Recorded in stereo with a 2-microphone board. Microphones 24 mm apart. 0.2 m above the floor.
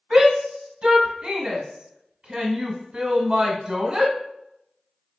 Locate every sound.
0.1 s a shout: 35° right (ahead or behind), 1.1 m